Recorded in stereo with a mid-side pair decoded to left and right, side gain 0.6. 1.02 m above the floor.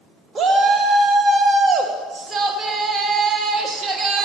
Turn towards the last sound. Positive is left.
turn(degrees=-35)